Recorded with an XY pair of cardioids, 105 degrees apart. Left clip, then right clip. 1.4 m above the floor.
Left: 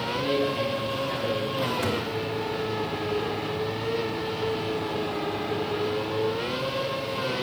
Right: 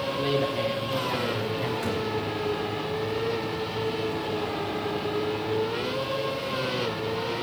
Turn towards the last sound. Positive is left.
turn(degrees=35)